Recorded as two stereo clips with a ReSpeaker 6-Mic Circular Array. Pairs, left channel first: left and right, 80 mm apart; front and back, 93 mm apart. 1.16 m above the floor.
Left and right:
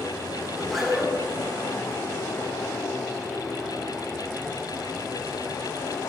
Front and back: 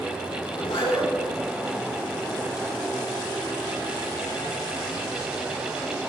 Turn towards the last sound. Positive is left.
turn(degrees=5)